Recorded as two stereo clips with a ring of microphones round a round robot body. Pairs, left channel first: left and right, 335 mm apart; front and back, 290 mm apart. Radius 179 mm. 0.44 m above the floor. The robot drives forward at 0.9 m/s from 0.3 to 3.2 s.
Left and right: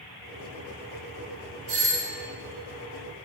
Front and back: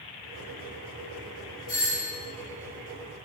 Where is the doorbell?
75° right, 3 m; by 2.1 s 85° right, 3 m.